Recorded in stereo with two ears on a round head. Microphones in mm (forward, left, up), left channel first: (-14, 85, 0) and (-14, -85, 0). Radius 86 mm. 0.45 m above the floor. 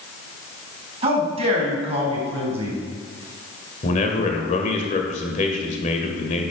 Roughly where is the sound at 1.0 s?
Right.